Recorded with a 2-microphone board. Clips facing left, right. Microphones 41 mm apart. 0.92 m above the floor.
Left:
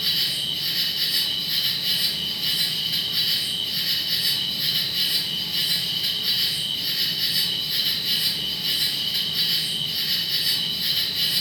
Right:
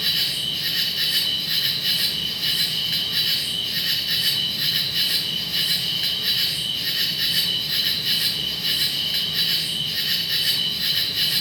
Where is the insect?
70° right (ahead or behind), 1.2 m.